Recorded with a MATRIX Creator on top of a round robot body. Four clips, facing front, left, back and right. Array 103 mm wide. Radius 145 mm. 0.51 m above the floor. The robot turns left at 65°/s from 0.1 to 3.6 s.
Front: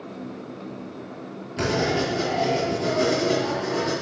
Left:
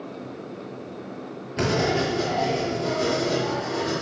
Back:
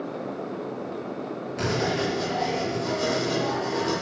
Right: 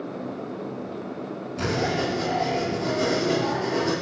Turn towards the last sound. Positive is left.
turn(degrees=-55)